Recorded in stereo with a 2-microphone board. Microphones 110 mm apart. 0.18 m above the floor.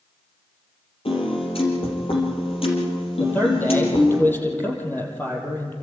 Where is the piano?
60° left (ahead or behind), 5 m.